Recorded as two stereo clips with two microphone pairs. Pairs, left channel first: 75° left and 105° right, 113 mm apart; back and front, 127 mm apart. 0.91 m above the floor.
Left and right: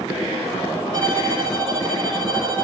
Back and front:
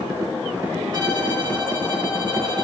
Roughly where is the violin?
Ahead right.